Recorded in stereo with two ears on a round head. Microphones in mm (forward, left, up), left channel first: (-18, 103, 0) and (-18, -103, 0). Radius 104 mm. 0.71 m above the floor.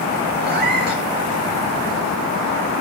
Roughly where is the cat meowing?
Right.